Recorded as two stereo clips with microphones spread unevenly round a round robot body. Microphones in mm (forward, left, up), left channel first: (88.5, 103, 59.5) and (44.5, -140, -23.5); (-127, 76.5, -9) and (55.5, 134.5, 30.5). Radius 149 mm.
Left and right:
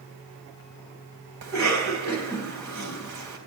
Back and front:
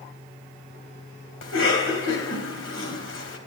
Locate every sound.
1.4 s a cough: 150° right, 3 m